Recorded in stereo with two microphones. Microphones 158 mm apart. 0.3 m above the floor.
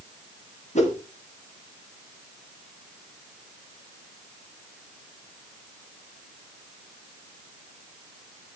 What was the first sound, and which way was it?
A whoosh, 50° left (ahead or behind).